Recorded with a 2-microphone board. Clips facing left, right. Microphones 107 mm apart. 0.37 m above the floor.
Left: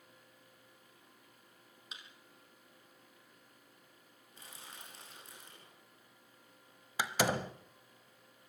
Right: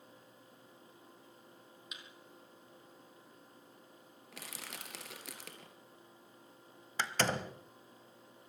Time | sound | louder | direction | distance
1.9 | a thud | left 1 dB | 30° left (ahead or behind) | 3 m
4.3 | crushing | right 5 dB | 85° right | 3 m
7.0 | a door slam | left 2 dB | 10° left (ahead or behind) | 1.1 m